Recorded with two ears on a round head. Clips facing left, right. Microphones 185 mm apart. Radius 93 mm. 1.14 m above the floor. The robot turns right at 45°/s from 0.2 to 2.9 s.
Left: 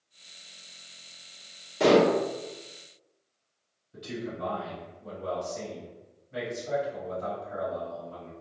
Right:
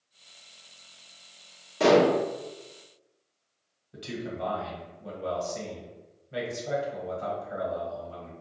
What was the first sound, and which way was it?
Dishes clattering, centre (ahead or behind).